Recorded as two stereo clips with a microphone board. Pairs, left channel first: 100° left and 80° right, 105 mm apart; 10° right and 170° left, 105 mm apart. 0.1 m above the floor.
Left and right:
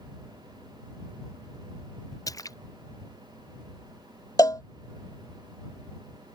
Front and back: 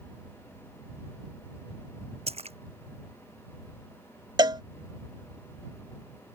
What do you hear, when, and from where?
2.3 s a splash: 155° left
4.4 s a cowbell: 140° left